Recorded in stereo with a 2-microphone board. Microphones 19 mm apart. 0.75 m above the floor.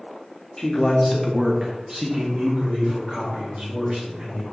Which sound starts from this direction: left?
A man speaking, at 0.6 s.